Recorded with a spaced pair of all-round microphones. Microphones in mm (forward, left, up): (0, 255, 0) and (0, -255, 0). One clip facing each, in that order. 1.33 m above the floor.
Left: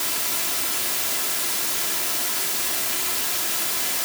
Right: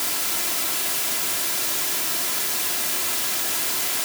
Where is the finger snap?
No finger snap in this recording.